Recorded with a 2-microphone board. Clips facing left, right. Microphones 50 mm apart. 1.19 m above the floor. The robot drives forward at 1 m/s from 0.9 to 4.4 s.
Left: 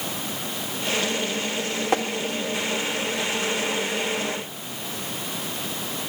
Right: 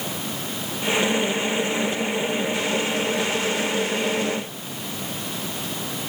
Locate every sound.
1.9 s tapping: 80° left, 1.5 m; by 2.0 s 75° left (ahead or behind), 1.5 m